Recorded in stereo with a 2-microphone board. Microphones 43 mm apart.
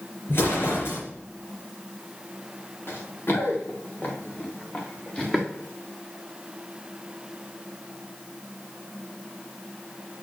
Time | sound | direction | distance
0.3 | an explosion | 65° left (ahead or behind) | 3.5 m
2.9 | running footsteps | 60° left (ahead or behind) | 2 m